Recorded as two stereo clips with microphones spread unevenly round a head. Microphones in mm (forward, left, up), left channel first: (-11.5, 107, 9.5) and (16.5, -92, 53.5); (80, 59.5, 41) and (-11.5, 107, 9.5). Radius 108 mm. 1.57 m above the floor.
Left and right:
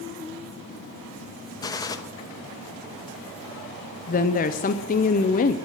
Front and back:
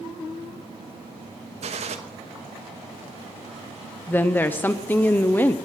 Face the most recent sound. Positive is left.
turn(degrees=45)